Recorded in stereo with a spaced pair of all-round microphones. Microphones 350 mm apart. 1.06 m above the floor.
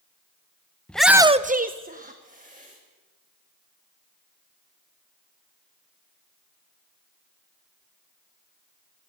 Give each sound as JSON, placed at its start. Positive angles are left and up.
{"t": 0.9, "sound": "a shout", "side_deg": 5, "distance_m": 0.8}